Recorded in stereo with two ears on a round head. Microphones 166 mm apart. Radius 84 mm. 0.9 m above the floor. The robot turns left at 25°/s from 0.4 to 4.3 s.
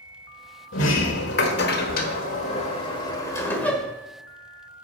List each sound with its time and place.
0.7 s a sliding door: 80° left, 1.3 m; by 3.9 s straight ahead, 1.3 m